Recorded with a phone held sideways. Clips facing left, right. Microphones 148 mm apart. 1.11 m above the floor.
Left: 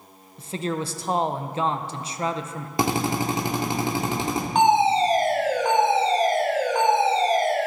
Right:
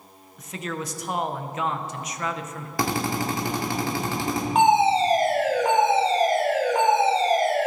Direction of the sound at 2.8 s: 20° left (ahead or behind).